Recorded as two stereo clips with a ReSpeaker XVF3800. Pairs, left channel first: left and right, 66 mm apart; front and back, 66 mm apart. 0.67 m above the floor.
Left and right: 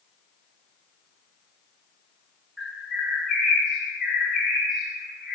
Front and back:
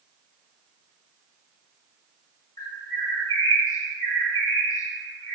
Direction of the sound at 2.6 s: 5° left.